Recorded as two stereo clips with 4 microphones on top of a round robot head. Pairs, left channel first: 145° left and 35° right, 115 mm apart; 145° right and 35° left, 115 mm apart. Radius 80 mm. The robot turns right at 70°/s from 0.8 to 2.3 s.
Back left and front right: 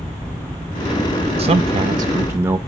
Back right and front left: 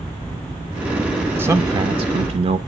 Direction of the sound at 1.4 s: 30° right.